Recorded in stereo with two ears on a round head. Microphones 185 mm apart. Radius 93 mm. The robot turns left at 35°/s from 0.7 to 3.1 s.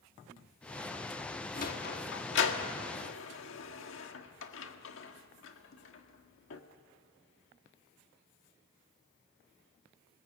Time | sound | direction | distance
1.6 | a sliding door | 40° left (ahead or behind) | 1.6 m